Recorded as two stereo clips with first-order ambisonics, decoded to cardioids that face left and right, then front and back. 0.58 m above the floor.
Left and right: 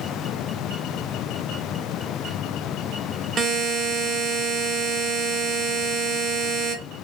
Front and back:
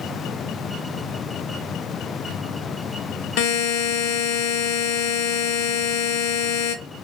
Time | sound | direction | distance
3.4 | a buzzer | 25° right | 0.5 m